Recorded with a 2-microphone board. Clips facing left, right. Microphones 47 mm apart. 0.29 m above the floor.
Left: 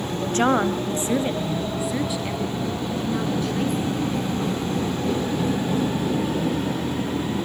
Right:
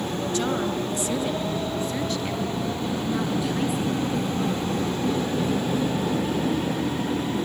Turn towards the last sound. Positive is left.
turn(degrees=-10)  # may be behind; listen again after turning